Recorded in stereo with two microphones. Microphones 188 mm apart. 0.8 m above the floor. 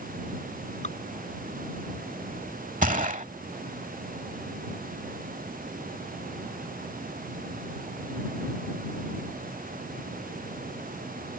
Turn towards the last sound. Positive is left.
turn(degrees=-45)  # may be behind; listen again after turning